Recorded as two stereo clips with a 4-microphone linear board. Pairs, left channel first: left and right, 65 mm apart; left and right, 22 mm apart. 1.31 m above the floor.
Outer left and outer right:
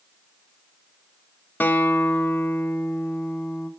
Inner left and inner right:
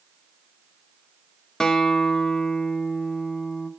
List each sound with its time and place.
1.6 s a guitar: 30° left (ahead or behind), 0.8 m